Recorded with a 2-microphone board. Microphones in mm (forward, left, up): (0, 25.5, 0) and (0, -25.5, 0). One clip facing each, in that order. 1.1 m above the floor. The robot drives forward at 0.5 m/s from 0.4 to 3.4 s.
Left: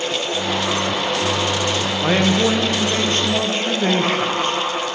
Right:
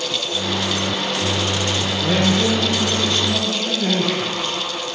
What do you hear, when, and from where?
2.0 s a man speaking: 35° left (ahead or behind), 0.8 m; by 4.6 s 40° left (ahead or behind), 0.7 m